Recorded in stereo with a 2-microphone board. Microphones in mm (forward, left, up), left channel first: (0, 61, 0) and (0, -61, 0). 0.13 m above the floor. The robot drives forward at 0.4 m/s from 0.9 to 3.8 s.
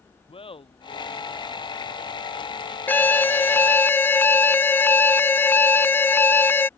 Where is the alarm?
15° left (ahead or behind).